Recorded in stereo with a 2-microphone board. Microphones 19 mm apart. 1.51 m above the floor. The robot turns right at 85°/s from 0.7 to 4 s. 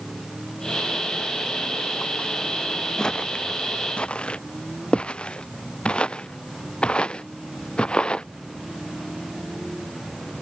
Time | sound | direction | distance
3.0 | footsteps | 35° left (ahead or behind) | ?